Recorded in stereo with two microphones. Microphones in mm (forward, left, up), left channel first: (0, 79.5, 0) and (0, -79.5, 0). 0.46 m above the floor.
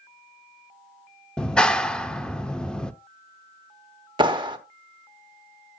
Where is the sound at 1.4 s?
5° left (ahead or behind), 0.6 m.